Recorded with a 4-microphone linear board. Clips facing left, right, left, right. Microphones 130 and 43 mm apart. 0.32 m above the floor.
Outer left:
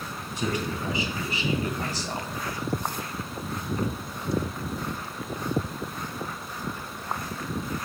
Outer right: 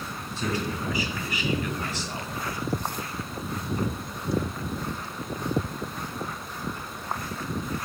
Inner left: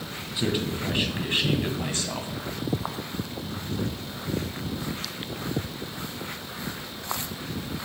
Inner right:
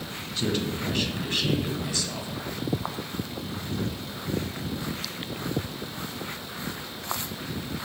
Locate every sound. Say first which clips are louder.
0.4 s a man speaking: even, inner left 1 dB; 15° left (ahead or behind), 2 m; by 2.3 s 45° left (ahead or behind), 1.9 m